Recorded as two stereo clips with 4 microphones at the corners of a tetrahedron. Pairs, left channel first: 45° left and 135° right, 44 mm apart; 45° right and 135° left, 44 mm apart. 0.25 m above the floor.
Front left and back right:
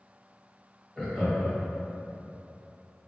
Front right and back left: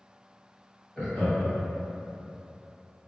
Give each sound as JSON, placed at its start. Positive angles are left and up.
{"t": 1.0, "sound": "laughter", "azimuth_deg": -35, "distance_m": 1.0}